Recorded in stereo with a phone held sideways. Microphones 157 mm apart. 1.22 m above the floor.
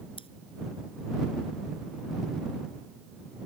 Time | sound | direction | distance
0.2 | scissors | 35° left (ahead or behind) | ?